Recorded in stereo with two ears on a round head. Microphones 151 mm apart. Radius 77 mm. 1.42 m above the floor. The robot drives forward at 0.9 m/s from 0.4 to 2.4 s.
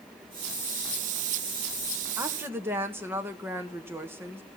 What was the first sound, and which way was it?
A woman speaking, 15° right (ahead or behind).